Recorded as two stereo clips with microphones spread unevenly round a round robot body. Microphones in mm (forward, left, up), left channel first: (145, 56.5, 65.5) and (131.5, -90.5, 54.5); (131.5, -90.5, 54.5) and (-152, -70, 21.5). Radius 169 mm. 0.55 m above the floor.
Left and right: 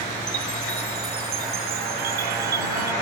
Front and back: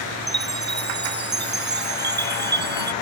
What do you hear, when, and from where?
0.3 s a chime: 130° right